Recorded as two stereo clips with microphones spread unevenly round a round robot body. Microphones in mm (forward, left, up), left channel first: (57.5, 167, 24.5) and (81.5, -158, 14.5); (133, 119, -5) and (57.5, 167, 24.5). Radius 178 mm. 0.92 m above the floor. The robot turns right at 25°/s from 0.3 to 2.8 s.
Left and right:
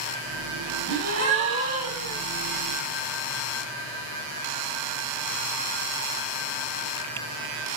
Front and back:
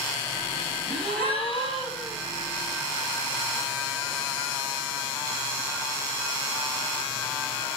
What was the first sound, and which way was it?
A gasp, 160° right.